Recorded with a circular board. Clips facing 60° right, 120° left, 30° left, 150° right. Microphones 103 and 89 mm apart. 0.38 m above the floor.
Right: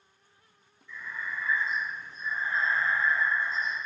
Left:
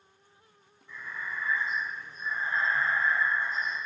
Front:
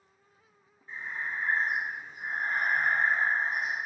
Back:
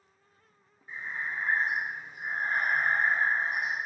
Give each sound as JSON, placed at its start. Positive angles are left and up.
{"t": 0.9, "sound": "breathing", "azimuth_deg": 140, "distance_m": 1.2}